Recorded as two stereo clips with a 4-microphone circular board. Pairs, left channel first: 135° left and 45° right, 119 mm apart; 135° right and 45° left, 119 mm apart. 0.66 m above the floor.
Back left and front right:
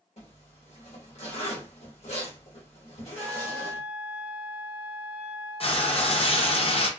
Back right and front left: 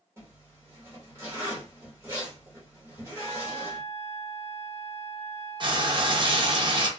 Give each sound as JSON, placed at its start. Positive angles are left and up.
{"t": 0.2, "sound": "a zipper", "azimuth_deg": 115, "distance_m": 1.2}
{"t": 3.2, "sound": "a flute", "azimuth_deg": -115, "distance_m": 0.7}
{"t": 5.6, "sound": "frying", "azimuth_deg": 95, "distance_m": 0.6}